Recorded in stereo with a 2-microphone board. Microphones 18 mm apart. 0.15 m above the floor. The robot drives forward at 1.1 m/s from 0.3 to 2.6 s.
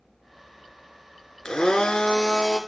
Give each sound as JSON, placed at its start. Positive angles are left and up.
{"t": 1.4, "sound": "a blender", "side_deg": 55, "distance_m": 0.9}